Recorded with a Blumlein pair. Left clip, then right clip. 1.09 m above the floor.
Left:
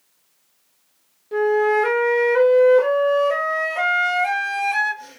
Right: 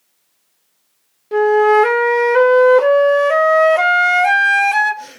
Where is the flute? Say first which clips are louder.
Right 6 dB; 25° right, 0.5 m.